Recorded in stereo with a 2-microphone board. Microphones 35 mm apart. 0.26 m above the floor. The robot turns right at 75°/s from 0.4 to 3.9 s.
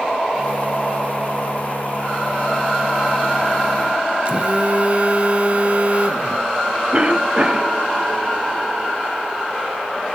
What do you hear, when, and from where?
4.2 s a phone buzzing: 35° right (ahead or behind), 0.8 m
6.9 s a cough: 30° right (ahead or behind), 1.1 m